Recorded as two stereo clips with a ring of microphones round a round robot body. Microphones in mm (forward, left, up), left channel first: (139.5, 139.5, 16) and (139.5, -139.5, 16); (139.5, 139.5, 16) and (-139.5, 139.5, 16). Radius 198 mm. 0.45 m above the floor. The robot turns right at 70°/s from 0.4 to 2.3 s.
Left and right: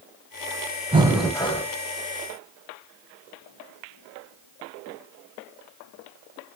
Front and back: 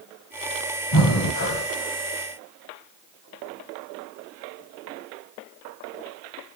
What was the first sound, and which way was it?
Breathing, 20° right.